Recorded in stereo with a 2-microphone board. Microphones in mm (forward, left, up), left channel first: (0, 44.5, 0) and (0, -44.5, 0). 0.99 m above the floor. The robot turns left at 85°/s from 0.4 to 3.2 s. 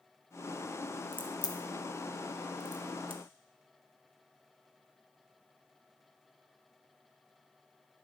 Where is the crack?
70° left (ahead or behind), 0.8 m; by 3.2 s 70° right (ahead or behind), 0.8 m.